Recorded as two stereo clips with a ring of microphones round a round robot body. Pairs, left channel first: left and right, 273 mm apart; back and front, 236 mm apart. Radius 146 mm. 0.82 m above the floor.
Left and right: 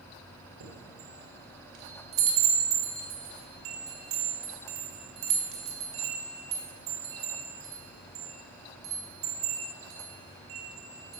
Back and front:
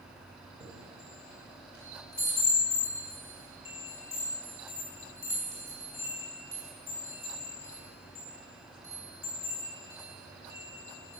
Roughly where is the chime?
Right.